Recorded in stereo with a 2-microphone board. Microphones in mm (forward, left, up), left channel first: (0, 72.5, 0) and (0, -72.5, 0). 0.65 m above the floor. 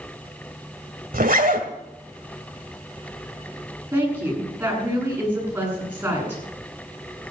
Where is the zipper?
85° right, 1.9 m.